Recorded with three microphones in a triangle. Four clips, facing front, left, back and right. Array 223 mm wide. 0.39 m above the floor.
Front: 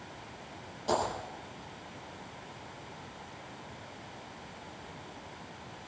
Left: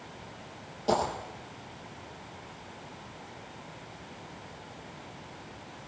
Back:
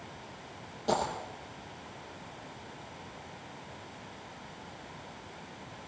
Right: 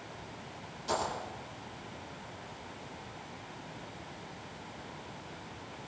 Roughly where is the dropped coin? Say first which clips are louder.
Left 6 dB, even; behind left.